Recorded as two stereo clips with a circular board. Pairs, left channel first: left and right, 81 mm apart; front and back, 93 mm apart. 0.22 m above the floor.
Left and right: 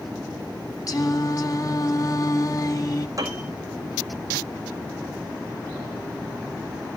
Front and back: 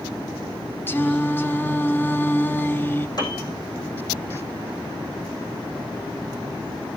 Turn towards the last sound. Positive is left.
turn(degrees=-45)